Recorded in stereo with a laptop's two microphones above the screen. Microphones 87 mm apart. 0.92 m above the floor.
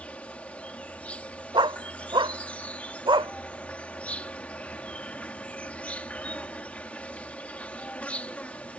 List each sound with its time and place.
0.0 s an insect: 15° left (ahead or behind)
1.5 s a dog barking: 75° right (ahead or behind)